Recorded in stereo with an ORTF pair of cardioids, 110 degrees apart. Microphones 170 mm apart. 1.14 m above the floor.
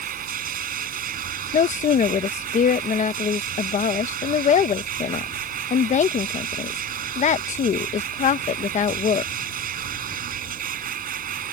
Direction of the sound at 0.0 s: 50° right.